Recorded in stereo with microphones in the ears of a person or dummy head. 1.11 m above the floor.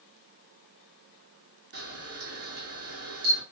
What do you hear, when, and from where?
1.7 s a camera shutter: 45° right (ahead or behind), 0.9 m